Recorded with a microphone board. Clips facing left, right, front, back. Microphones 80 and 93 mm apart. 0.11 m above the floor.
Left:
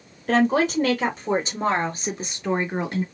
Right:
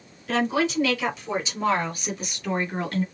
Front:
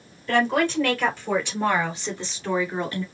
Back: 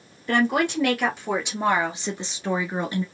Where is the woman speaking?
105° left, 2.5 m; by 3.0 s 140° left, 1.5 m.